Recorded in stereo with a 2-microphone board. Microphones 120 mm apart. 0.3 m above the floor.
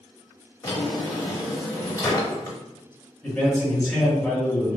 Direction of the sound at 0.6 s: 30° left (ahead or behind).